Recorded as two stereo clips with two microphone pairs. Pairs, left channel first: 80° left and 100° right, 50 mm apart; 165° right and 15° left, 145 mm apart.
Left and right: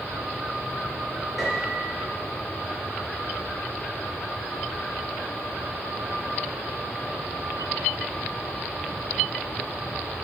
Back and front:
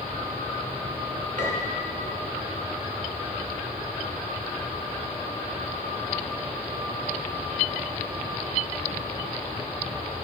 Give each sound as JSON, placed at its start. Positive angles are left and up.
{"t": 1.4, "sound": "a piano", "azimuth_deg": -10, "distance_m": 4.5}